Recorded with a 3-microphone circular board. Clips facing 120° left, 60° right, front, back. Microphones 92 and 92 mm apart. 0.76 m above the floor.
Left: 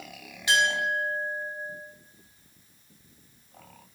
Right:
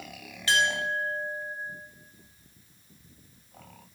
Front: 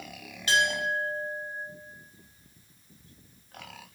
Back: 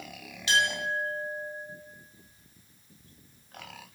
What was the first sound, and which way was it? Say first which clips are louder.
A clink: left 1 dB, front 1 dB; 45° left.